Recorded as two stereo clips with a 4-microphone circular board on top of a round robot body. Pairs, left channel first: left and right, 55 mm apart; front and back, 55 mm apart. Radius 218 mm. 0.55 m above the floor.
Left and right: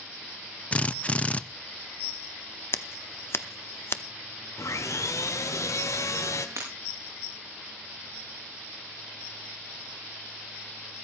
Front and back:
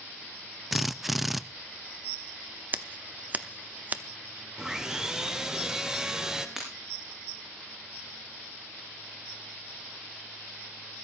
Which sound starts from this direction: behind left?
Scissors, at 2.7 s.